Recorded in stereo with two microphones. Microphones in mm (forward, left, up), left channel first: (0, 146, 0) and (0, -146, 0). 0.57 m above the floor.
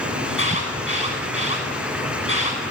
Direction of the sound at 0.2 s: 45° left (ahead or behind).